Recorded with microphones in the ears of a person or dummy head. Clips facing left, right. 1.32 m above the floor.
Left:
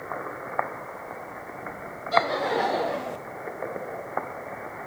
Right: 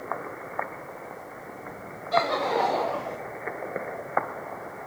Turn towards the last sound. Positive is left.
turn(degrees=30)  # may be behind; listen again after turning